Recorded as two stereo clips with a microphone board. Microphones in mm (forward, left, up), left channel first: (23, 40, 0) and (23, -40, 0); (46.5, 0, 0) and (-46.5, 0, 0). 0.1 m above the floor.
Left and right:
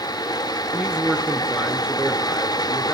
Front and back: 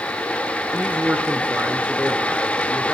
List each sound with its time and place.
0.7 s a man speaking: 145° right, 1.7 m